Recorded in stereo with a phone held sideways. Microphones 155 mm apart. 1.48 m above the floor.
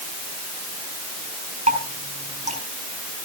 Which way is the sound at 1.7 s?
55° right (ahead or behind).